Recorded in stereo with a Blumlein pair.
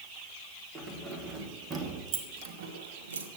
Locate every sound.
0.8 s keys jangling: 10° right, 4 m; by 3.3 s 75° right, 2 m